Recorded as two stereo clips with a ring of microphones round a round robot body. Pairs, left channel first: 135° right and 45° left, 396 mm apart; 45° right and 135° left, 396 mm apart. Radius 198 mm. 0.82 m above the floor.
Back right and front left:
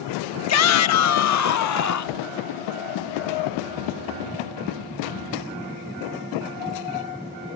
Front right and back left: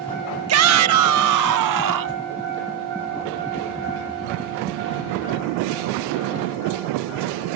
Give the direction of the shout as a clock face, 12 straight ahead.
6 o'clock.